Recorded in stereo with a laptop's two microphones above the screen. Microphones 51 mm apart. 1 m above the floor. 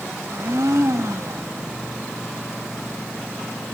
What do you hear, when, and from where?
0.3 s a blender: 75° right (ahead or behind), 1.4 m